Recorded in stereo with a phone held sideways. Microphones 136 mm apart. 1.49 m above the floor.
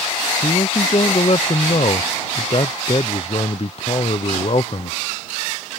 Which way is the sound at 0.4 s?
45° left (ahead or behind).